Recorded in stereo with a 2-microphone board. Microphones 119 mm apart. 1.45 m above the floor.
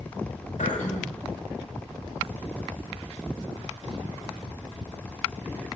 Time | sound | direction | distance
0.6 | throat clearing | 85° left | 2.5 m